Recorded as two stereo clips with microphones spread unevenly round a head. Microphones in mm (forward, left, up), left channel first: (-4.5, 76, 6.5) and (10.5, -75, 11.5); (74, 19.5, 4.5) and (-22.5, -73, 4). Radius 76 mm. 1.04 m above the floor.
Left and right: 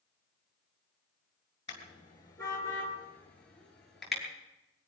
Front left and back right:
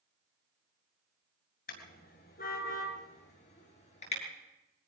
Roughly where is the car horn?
Ahead left.